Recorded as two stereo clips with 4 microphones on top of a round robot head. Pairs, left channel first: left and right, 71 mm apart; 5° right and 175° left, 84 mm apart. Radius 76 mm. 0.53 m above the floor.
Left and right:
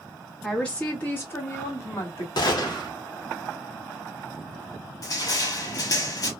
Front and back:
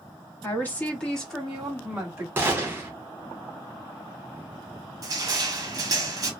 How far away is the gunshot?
About 0.7 m.